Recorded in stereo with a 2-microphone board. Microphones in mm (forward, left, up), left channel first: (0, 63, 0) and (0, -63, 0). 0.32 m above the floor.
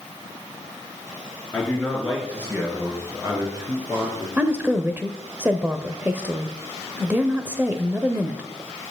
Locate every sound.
1.5 s a man speaking: centre (ahead or behind), 3.5 m; by 4.3 s 35° right (ahead or behind), 4.5 m
4.4 s a woman speaking: 15° right (ahead or behind), 0.9 m